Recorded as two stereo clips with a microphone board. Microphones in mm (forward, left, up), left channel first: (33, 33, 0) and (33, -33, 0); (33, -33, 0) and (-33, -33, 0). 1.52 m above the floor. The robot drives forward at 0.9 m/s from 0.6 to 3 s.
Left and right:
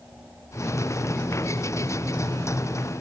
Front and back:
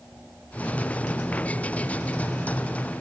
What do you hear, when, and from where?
Only background noise.